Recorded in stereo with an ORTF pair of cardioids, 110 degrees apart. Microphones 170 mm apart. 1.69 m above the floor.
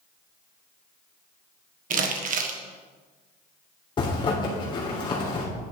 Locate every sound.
1.9 s crumpling: 55° right, 1.5 m
4.0 s a zipper: 30° left, 3.5 m